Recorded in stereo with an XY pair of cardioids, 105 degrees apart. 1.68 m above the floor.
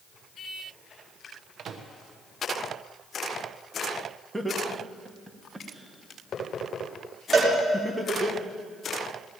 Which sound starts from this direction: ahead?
Laughter, at 4.3 s.